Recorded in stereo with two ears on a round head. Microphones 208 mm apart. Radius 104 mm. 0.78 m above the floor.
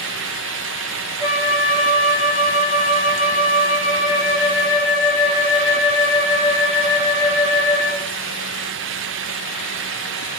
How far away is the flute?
About 8.5 m.